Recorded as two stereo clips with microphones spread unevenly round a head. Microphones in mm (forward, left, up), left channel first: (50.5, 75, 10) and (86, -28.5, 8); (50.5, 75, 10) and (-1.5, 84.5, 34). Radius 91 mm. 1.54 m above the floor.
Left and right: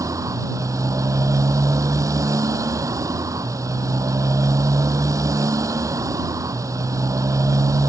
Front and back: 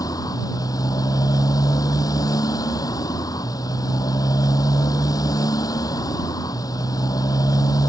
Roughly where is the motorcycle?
Ahead.